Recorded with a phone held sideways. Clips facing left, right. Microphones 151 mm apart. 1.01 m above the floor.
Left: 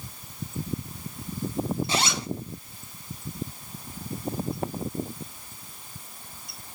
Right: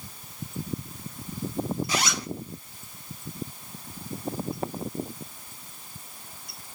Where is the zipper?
25° left (ahead or behind), 0.7 m.